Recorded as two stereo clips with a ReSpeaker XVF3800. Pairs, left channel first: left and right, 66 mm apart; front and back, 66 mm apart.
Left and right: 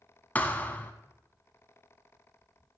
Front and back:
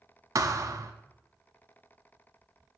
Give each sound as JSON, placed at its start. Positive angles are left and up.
{"t": 0.3, "sound": "a thud", "azimuth_deg": 155, "distance_m": 0.8}